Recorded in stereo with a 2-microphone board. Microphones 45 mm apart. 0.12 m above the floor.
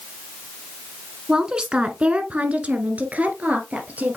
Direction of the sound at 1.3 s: 15° right (ahead or behind).